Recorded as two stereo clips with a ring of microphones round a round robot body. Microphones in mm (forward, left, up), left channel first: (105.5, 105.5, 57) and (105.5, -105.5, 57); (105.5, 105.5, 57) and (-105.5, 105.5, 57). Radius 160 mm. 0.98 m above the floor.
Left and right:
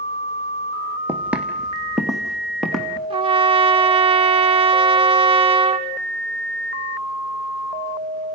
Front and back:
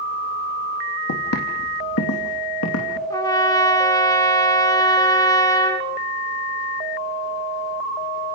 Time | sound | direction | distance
1.1 | footsteps | 10° right | 2.5 m
3.1 | a trumpet | 65° right | 0.8 m